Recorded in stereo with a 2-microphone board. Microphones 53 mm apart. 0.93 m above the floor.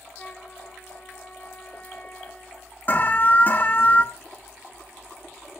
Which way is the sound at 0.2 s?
30° left (ahead or behind).